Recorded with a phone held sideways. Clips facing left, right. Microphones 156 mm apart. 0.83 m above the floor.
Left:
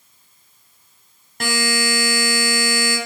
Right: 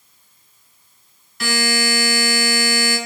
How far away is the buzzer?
About 0.8 m.